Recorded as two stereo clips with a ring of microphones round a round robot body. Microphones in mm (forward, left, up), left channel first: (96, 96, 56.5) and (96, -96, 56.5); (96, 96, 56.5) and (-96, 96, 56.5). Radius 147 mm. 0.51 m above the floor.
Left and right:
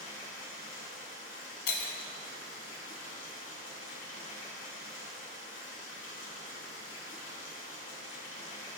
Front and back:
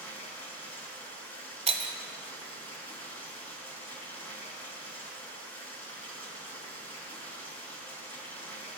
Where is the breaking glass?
120° left, 0.9 m.